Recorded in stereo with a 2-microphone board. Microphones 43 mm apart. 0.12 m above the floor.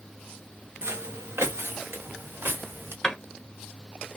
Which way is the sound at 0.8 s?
70° right (ahead or behind).